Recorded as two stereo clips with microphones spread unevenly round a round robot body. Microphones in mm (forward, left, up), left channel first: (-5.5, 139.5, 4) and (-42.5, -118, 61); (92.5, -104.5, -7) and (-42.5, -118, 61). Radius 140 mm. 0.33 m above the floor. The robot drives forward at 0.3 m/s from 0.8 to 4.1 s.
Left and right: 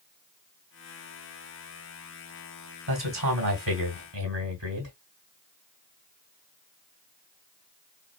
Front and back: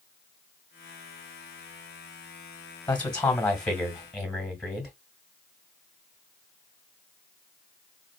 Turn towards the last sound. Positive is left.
turn(degrees=-65)